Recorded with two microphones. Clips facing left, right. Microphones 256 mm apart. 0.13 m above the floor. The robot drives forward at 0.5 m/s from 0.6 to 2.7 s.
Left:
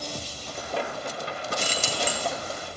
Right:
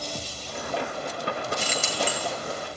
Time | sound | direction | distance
1.6 | keys jangling | 35° left (ahead or behind) | 1.8 m